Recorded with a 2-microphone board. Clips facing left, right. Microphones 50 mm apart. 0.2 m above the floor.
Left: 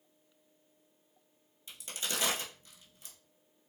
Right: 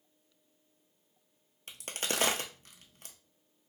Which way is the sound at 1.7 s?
55° right (ahead or behind).